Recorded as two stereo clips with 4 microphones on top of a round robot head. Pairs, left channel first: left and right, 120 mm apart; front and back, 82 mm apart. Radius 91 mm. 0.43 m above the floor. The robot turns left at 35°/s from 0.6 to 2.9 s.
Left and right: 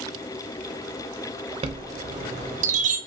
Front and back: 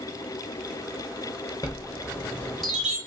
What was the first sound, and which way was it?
A chime, 55° right.